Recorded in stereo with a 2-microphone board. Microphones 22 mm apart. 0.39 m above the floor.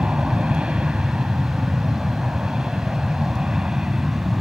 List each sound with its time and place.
0.0 s an aircraft: 60° right (ahead or behind); by 4.4 s 35° right (ahead or behind)